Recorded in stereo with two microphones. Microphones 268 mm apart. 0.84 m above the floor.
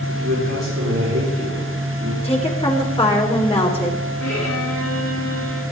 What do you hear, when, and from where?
0.1 s a man speaking: 65° right (ahead or behind), 8 m
2.2 s a woman speaking: 25° left (ahead or behind), 3.5 m
4.2 s a violin: 80° left, 8.5 m